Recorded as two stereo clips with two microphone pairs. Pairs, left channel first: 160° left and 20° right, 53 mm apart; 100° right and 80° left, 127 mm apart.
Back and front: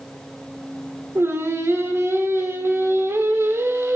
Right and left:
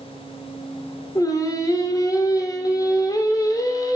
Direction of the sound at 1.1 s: 45° right.